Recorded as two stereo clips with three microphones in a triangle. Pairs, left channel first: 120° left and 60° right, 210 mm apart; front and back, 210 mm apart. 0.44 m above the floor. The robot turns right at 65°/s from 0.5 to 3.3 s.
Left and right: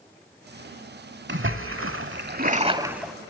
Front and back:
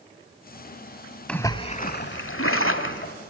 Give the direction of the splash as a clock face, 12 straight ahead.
3 o'clock.